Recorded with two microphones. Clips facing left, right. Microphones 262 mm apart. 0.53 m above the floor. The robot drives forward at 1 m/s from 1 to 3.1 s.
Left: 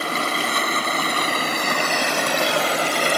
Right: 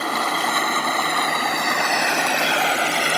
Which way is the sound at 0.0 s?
30° left (ahead or behind).